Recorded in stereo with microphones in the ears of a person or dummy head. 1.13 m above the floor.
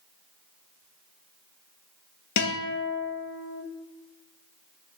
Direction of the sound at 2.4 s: 55° left (ahead or behind).